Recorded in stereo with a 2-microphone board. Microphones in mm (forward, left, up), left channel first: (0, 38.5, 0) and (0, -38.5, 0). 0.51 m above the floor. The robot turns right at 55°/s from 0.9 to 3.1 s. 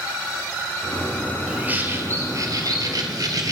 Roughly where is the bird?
Behind.